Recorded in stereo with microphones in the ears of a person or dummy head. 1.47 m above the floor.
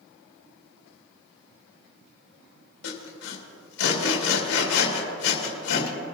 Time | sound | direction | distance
2.8 | sawing | 60° left (ahead or behind) | 2 m